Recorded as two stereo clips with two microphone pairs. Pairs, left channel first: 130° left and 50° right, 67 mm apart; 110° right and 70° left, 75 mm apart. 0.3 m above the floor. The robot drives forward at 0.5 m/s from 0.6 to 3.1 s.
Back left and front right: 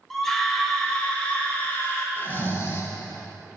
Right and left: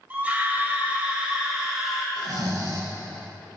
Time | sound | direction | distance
0.1 | a scream | 60° left | 1.0 m
2.2 | snoring | 75° left | 0.8 m